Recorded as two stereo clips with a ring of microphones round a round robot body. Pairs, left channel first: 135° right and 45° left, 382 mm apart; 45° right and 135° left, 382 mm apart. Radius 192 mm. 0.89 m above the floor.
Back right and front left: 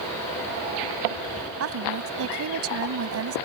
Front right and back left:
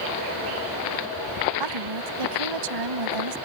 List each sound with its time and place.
1.6 s a woman speaking: 100° left